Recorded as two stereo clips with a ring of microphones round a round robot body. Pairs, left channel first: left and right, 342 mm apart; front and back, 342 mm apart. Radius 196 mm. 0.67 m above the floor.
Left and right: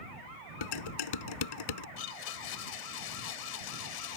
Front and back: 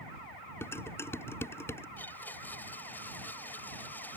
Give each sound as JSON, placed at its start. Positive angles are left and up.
{"t": 0.6, "sound": "dishes clattering", "azimuth_deg": 85}
{"t": 2.0, "sound": "a blender", "azimuth_deg": 85}